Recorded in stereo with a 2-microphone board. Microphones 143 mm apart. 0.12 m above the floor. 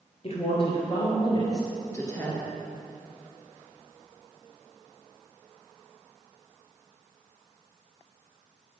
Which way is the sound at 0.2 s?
45° left (ahead or behind).